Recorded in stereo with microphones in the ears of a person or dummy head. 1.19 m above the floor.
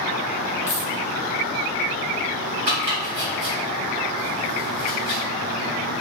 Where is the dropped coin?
35° left (ahead or behind), 0.8 m.